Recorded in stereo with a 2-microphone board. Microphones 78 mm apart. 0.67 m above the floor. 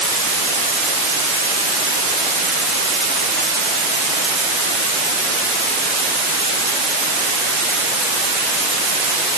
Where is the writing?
I don't hear writing.